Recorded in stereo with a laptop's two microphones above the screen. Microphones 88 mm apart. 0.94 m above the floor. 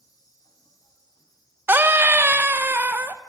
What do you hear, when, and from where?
0.0 s an insect: 45° left (ahead or behind), 4 m
1.7 s a scream: 25° right (ahead or behind), 0.7 m